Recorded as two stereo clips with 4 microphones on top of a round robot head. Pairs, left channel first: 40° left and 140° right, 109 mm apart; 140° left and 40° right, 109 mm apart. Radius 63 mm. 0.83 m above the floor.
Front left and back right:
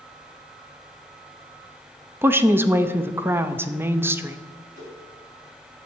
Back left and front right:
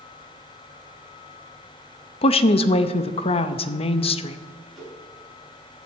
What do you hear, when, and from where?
2.2 s a woman speaking: 150° left, 0.7 m
4.8 s a whoosh: 125° right, 4.5 m